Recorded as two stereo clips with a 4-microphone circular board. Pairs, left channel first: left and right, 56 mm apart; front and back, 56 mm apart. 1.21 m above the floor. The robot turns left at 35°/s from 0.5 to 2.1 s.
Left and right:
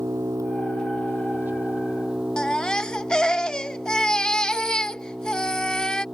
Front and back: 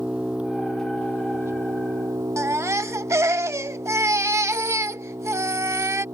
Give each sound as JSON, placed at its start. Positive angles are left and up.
{"t": 0.0, "sound": "an engine running", "azimuth_deg": -110}
{"t": 2.4, "sound": "a baby crying", "azimuth_deg": 165}